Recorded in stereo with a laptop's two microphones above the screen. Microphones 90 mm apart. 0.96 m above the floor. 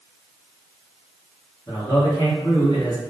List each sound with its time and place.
1.7 s a man speaking: 55° left (ahead or behind), 1.3 m